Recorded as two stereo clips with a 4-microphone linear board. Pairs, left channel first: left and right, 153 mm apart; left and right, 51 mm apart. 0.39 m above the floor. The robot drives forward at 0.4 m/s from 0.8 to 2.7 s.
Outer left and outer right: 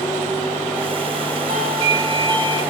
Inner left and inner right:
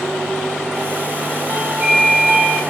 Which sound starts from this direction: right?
A doorbell, at 1.5 s.